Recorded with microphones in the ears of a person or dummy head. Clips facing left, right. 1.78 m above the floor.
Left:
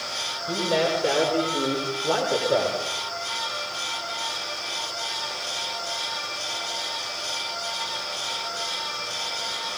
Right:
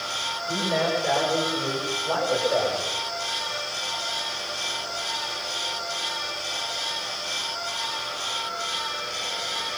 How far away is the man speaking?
About 7 m.